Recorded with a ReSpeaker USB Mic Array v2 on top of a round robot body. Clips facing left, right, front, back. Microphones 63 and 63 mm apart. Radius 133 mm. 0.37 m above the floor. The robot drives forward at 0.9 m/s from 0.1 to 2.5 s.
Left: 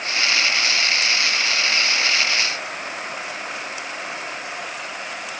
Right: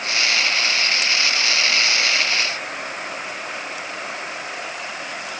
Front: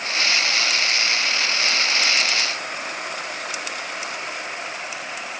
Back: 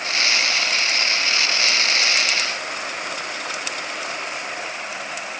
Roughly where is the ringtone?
I don't hear a ringtone.